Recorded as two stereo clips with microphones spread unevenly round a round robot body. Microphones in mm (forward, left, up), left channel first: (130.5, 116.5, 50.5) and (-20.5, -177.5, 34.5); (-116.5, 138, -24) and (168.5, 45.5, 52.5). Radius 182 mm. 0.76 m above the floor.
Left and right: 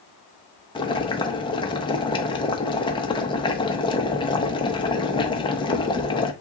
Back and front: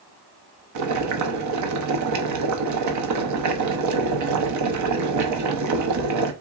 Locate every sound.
0.8 s boiling: 10° right, 0.7 m